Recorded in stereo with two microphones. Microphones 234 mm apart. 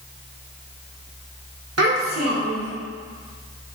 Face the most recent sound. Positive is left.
turn(degrees=-80)